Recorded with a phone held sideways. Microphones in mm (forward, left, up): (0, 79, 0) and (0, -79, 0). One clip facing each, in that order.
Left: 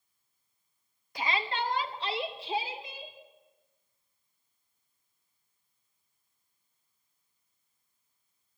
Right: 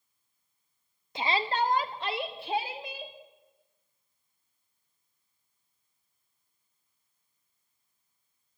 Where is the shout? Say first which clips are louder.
Right 4 dB; 25° right (ahead or behind), 1.3 m; by 3.1 s 70° right (ahead or behind), 3 m.